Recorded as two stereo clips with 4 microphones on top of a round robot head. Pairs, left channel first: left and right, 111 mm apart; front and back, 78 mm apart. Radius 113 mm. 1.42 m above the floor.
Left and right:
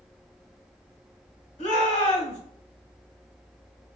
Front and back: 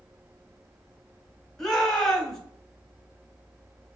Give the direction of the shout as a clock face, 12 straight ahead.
9 o'clock.